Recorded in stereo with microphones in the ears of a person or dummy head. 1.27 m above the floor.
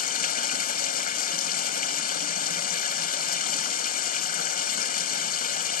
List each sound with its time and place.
0.0 s running water: 45° left (ahead or behind)